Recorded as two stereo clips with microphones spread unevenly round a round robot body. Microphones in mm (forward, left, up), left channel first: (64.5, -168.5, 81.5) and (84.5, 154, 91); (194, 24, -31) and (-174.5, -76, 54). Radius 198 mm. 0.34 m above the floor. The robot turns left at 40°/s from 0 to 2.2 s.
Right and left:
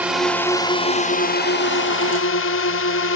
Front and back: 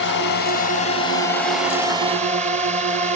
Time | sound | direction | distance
0.0 | a drone | straight ahead | ?